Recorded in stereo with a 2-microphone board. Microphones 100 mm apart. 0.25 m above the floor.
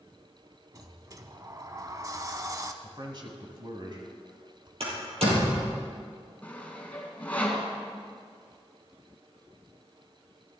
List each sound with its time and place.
0.7 s a sliding door: 35° right (ahead or behind), 0.8 m
2.8 s a man speaking: 45° right (ahead or behind), 1.9 m
4.8 s a door slam: 70° right (ahead or behind), 4.5 m
6.4 s sawing: 15° left (ahead or behind), 2 m